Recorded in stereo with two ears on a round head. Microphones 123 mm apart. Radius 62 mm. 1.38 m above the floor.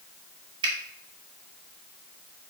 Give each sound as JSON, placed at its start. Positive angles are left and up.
{"t": 0.6, "sound": "a finger snap", "side_deg": -35, "distance_m": 1.2}